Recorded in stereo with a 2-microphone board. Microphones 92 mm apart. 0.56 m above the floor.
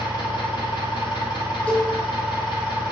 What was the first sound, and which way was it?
An engine running, 65° left (ahead or behind).